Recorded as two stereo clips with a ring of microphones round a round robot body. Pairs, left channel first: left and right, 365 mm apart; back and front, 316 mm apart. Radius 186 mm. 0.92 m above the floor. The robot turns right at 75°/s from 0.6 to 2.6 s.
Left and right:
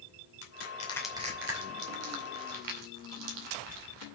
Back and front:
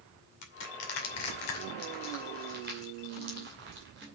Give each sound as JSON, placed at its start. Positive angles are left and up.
{"t": 0.4, "sound": "crushing", "azimuth_deg": 145, "distance_m": 2.5}